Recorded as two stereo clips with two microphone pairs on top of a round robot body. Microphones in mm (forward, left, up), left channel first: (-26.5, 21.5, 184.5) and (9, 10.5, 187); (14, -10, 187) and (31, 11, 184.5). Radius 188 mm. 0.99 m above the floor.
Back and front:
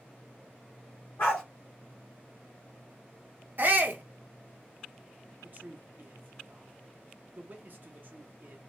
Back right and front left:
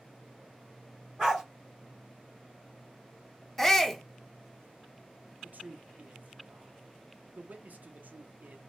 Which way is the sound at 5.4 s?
30° left.